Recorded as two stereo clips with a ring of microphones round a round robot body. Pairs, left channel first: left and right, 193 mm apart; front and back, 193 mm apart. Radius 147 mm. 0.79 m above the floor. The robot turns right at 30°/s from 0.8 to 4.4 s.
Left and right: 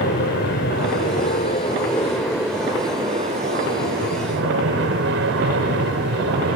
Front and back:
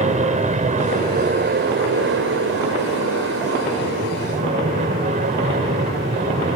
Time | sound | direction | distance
0.0 | an aircraft | 130° left | ?